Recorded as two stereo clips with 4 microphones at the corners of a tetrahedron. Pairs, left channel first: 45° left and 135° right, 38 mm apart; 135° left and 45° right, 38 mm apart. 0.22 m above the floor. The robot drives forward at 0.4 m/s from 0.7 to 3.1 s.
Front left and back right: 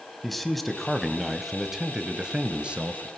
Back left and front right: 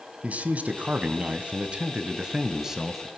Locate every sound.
0.2 s a man speaking: 35° right, 1.2 m; by 3.1 s 125° right, 1.1 m